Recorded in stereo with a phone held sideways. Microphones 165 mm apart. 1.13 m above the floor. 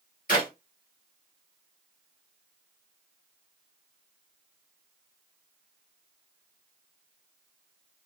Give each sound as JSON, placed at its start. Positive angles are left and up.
{"t": 0.3, "sound": "a clap", "side_deg": 55, "distance_m": 1.9}